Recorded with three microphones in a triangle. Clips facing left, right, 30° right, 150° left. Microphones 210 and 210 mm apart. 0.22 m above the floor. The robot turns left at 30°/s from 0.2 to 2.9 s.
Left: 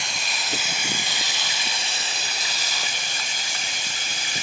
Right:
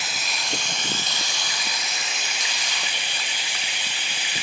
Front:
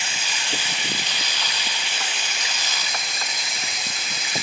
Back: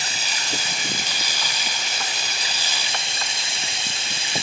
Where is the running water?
175° right, 1.1 m; by 4.4 s 105° left, 1.1 m.